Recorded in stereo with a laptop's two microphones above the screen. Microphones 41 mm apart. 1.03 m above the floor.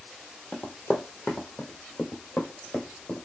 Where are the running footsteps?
40° left (ahead or behind), 1.4 m; by 3.2 s 60° left (ahead or behind), 3 m.